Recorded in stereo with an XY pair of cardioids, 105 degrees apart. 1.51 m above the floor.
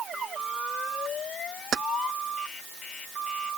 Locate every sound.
1.7 s keys jangling: 55° right